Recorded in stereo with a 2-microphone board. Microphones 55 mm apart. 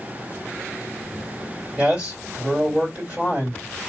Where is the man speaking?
25° right (ahead or behind), 3 m.